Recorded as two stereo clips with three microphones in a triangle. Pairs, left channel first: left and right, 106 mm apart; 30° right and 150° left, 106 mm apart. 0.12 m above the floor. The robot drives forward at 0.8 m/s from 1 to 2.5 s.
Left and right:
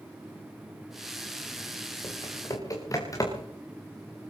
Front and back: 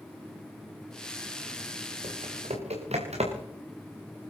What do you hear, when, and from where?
2.0 s typing on a keyboard: 145° left, 4.5 m; by 3.5 s 150° left, 4.5 m